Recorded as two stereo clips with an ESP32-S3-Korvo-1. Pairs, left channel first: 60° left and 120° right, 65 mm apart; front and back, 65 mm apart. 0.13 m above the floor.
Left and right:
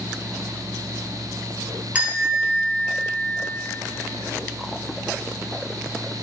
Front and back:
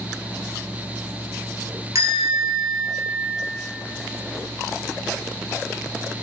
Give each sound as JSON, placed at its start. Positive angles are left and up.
{"t": 1.9, "sound": "a bell", "azimuth_deg": 175, "distance_m": 2.5}